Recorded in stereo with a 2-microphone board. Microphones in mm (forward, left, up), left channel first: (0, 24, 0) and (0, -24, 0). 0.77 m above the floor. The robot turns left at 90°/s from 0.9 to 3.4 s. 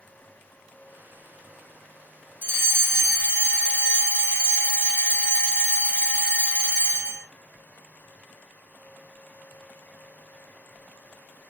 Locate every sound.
2.4 s a fire alarm: 50° right, 2.5 m; by 7.2 s 135° right, 2.5 m